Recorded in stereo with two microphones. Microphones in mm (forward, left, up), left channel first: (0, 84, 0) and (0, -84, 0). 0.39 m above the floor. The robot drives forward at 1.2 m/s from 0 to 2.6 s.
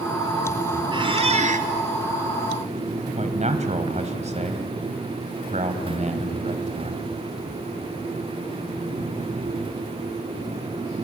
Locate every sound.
0.9 s a squeak: 30° right (ahead or behind), 1.7 m; by 1.7 s 55° right (ahead or behind), 1.0 m
3.2 s a man speaking: 40° right (ahead or behind), 2.5 m